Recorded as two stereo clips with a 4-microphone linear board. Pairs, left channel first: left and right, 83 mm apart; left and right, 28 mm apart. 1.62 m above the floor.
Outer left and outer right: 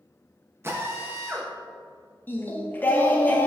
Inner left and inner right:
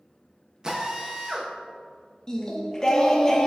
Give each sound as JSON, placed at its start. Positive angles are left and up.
{"t": 0.6, "sound": "a drill", "side_deg": -30, "distance_m": 0.6}
{"t": 2.3, "sound": "singing", "side_deg": 20, "distance_m": 0.5}